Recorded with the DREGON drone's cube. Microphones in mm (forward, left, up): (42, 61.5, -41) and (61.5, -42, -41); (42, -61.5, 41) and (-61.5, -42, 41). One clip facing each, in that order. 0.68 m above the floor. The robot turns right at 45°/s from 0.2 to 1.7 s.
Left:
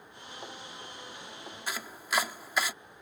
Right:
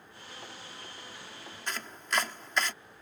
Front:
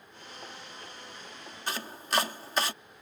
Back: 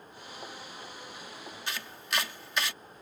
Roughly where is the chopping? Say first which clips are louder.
Even, front 4 dB; ahead.